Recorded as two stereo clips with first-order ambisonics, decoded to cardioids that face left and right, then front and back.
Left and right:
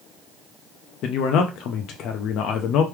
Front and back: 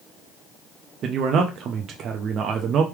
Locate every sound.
1.0 s a man speaking: 130° left, 0.5 m